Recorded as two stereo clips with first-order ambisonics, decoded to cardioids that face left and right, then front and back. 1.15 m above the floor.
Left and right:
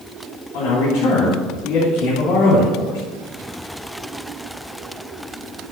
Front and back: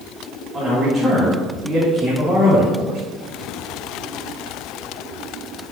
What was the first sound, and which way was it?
A man speaking, 100° left.